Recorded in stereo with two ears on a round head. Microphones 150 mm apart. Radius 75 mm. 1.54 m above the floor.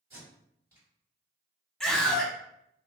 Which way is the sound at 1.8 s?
5° left (ahead or behind).